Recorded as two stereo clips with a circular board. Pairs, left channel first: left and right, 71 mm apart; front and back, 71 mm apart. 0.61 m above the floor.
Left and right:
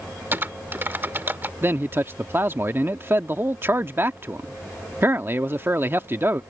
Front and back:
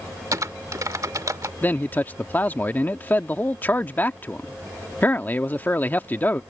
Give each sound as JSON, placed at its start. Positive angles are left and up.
{"t": 0.3, "sound": "typing on a keyboard", "azimuth_deg": -150}
{"t": 1.6, "sound": "a man speaking", "azimuth_deg": -50}